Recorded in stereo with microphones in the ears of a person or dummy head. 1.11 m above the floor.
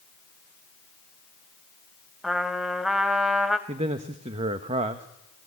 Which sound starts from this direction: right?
A man speaking, at 3.7 s.